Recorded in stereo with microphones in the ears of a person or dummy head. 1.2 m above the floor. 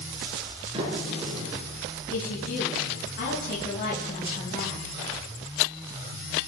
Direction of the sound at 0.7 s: 35° right (ahead or behind).